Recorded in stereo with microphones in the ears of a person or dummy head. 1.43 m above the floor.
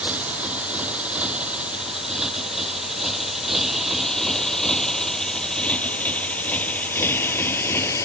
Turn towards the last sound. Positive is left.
turn(degrees=15)  # may be behind; listen again after turning